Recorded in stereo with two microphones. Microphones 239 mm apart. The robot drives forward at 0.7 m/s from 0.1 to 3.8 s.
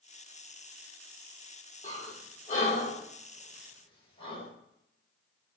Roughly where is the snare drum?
I don't hear a snare drum.